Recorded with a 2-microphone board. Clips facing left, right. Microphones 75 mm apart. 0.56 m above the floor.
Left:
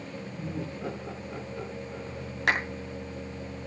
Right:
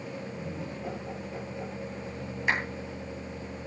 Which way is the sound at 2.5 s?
80° left.